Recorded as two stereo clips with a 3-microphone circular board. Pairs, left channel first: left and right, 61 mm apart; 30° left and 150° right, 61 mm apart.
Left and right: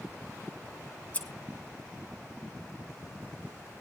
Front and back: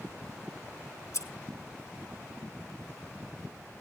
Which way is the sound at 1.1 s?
30° left.